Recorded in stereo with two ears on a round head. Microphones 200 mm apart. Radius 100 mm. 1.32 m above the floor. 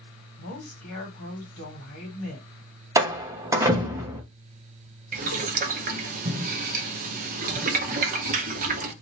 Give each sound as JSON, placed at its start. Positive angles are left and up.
{"t": 0.4, "sound": "a woman speaking", "side_deg": 60, "distance_m": 1.6}
{"t": 3.0, "sound": "a door slam", "side_deg": -15, "distance_m": 0.7}
{"t": 5.1, "sound": "boiling", "side_deg": -35, "distance_m": 0.6}